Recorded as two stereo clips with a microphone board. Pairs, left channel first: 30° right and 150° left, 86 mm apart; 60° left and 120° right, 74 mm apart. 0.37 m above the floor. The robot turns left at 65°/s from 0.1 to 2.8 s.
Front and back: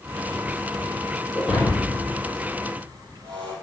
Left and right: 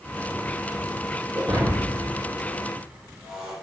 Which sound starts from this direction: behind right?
Breaking glass, at 1.4 s.